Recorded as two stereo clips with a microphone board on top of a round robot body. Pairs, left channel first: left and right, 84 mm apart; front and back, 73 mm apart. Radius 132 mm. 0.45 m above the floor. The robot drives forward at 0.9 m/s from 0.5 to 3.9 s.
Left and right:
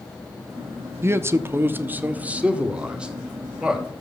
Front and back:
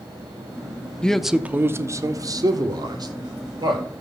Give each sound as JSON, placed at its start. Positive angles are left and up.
{"t": 1.0, "sound": "a man speaking", "azimuth_deg": -65, "distance_m": 0.8}